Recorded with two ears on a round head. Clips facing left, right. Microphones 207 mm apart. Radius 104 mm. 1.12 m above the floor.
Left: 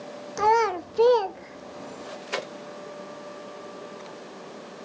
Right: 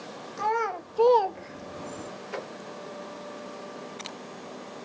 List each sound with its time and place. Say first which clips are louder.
0.4 s a child speaking: left 7 dB; 65° left (ahead or behind), 0.8 m; by 2.1 s 25° right (ahead or behind), 1.2 m